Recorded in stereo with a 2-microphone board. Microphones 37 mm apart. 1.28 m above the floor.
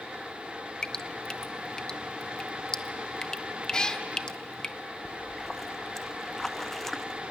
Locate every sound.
0.8 s dripping: 20° left (ahead or behind), 0.6 m
3.7 s a cat meowing: 20° left (ahead or behind), 0.9 m
5.0 s a splash: 10° left (ahead or behind), 0.7 m